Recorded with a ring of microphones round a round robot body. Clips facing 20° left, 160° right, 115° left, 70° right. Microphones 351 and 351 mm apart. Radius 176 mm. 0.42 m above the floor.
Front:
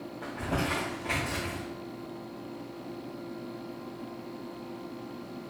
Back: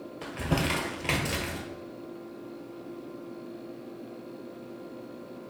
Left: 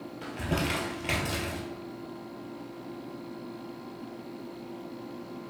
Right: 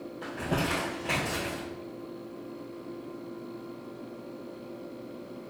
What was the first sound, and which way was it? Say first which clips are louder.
Crumpling: back 3 dB, even; 175° left.